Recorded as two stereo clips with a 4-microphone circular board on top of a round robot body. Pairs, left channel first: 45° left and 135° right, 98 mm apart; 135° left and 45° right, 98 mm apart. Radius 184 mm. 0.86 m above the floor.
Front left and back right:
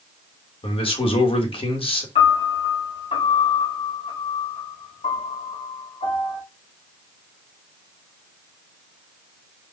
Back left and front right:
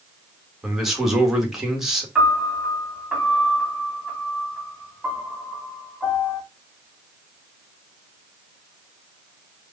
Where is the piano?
40° left, 2.5 m.